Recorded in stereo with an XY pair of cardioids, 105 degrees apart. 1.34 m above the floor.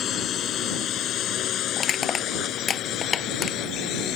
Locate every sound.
0.0 s a drone: 60° left; by 4.2 s 75° left
1.8 s crushing: 45° left